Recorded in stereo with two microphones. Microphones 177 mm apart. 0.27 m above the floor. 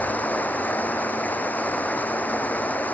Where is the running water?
10° left (ahead or behind).